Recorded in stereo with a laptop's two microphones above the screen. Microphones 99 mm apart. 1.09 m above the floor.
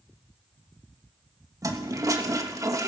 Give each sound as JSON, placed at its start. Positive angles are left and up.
{"t": 1.6, "sound": "a toilet flushing", "side_deg": -35, "distance_m": 1.5}